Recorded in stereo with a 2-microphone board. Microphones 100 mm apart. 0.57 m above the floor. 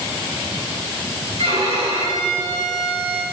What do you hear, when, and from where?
1.4 s a violin: 90° right, 4.5 m